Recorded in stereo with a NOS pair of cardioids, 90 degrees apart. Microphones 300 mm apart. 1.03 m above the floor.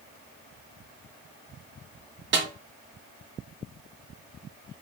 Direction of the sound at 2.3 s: 40° right.